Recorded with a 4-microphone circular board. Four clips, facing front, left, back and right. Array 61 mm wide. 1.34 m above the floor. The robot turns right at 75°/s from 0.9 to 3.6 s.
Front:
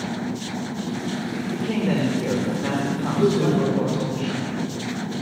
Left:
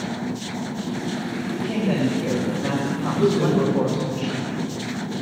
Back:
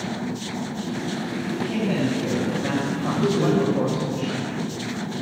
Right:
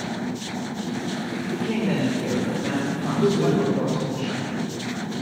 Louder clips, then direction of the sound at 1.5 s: Left 1 dB, front 2 dB; 65° right.